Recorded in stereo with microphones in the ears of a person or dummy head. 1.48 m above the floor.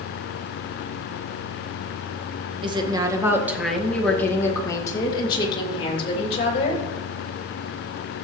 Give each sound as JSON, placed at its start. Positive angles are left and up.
{"t": 2.6, "sound": "a woman speaking", "side_deg": -20, "distance_m": 1.6}